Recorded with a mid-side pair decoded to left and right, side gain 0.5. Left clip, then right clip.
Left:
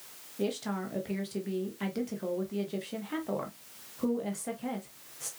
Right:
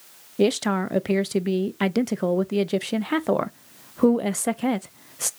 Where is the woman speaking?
70° right, 0.6 m.